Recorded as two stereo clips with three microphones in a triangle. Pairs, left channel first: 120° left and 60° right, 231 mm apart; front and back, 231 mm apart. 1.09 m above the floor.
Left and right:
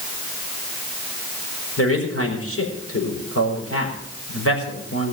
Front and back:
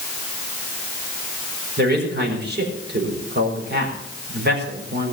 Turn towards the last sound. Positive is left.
turn(degrees=135)